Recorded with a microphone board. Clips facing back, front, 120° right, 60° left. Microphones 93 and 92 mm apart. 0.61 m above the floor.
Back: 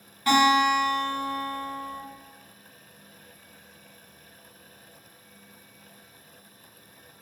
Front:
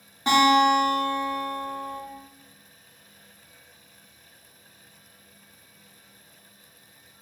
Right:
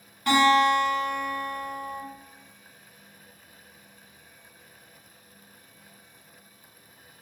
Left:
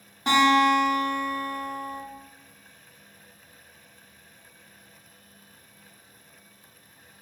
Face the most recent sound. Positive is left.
turn(degrees=30)